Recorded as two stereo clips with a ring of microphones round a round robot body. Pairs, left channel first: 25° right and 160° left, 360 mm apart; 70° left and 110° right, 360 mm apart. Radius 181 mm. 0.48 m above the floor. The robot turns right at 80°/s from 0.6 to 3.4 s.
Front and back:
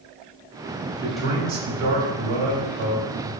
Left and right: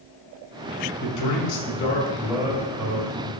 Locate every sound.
1.0 s a man speaking: 55° left, 3 m; by 3.3 s 120° right, 3 m